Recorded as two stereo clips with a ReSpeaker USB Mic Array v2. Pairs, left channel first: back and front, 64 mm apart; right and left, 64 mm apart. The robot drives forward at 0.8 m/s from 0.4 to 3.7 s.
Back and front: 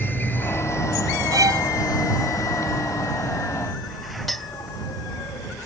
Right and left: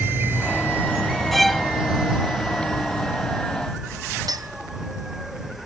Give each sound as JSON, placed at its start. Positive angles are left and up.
{"t": 0.0, "sound": "an insect", "azimuth_deg": 135}
{"t": 1.3, "sound": "a violin", "azimuth_deg": 0}
{"t": 4.3, "sound": "a clink", "azimuth_deg": 95}